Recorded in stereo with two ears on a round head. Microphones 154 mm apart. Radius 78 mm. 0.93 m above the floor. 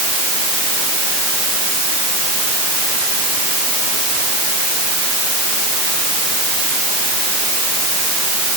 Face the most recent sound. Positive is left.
No sound to turn to.